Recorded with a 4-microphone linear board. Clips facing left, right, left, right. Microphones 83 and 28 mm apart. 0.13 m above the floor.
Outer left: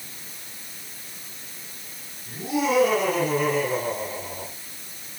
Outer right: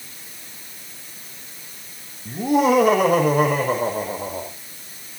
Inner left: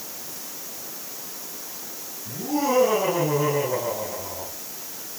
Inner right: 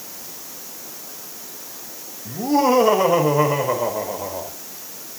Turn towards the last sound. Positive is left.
turn(degrees=-65)  # may be behind; listen again after turning